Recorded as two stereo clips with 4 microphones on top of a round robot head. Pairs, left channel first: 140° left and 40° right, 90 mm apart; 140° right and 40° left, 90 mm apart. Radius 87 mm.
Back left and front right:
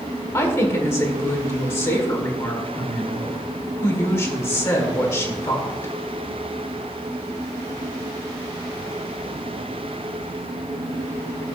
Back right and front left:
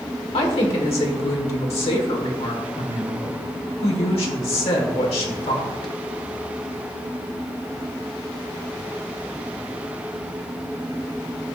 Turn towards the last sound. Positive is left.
turn(degrees=-160)